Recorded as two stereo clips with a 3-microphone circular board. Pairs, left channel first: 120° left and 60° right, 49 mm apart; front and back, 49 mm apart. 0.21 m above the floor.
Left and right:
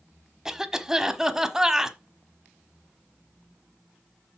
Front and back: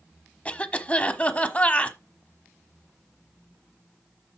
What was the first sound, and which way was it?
A cough, 5° left.